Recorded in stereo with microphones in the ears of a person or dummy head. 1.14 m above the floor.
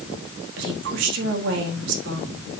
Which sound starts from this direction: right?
A woman speaking, at 0.6 s.